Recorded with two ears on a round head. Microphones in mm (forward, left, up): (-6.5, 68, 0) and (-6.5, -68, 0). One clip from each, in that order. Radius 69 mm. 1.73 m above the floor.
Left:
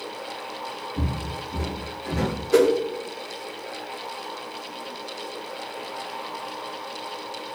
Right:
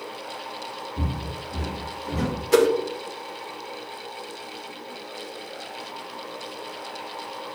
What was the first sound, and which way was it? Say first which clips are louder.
Footsteps: left 1 dB; 25° left (ahead or behind).